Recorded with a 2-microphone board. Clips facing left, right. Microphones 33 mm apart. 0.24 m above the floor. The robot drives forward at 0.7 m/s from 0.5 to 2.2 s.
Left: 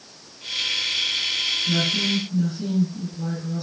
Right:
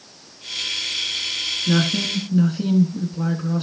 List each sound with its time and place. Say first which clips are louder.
1.7 s a woman speaking: right 5 dB; 60° right (ahead or behind), 2 m; by 3.6 s 65° right (ahead or behind), 2 m